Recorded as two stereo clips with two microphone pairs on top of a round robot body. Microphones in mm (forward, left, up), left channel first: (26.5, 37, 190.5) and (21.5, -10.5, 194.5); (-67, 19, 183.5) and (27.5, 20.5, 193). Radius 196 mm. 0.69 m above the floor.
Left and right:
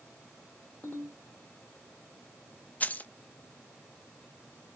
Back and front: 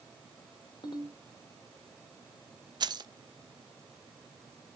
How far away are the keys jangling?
About 0.7 m.